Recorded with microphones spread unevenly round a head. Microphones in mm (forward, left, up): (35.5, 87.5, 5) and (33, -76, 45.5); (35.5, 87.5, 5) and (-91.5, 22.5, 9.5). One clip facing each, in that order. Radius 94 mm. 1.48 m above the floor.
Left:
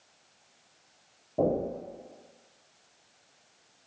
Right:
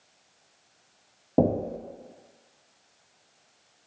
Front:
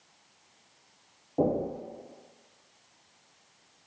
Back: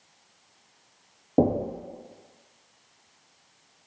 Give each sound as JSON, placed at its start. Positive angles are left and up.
{"t": 1.4, "sound": "knocking", "azimuth_deg": -105, "distance_m": 0.6}